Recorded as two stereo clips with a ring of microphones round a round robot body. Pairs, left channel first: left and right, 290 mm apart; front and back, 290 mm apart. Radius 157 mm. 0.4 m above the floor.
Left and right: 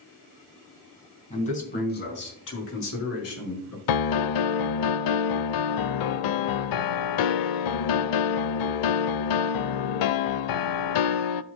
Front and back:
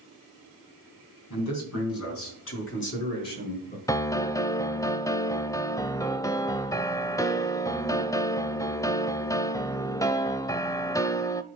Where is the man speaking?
20° left, 3.5 m; by 3.8 s 60° left, 5.5 m.